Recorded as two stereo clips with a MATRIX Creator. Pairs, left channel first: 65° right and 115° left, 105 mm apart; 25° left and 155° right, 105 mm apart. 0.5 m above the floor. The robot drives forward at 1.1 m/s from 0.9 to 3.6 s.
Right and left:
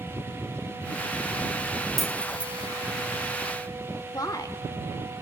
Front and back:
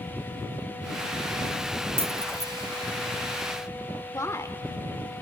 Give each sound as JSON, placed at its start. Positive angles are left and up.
{"t": 2.0, "sound": "keys jangling", "azimuth_deg": -155, "distance_m": 0.7}
{"t": 4.1, "sound": "a woman speaking", "azimuth_deg": -30, "distance_m": 1.3}